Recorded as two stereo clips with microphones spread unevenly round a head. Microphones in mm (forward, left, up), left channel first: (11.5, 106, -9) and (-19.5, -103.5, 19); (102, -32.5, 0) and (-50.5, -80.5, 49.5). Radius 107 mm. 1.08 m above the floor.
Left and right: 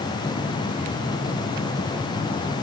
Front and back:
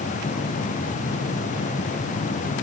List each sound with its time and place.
Only background noise.